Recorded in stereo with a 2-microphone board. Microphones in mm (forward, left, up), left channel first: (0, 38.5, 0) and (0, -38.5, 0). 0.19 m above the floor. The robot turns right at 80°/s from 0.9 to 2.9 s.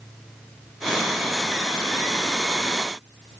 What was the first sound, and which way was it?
Only background noise.